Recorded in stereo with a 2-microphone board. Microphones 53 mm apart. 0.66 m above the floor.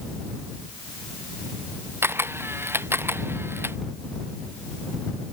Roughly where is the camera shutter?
Right.